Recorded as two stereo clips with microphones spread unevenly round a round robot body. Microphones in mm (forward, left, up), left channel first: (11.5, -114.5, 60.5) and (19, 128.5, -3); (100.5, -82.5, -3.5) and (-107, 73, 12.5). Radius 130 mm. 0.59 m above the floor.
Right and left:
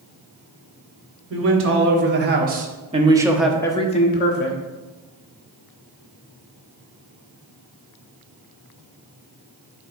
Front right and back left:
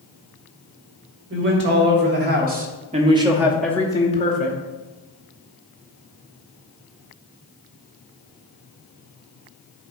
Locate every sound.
1.3 s a man speaking: 100° left, 1.7 m; by 4.6 s 65° right, 1.0 m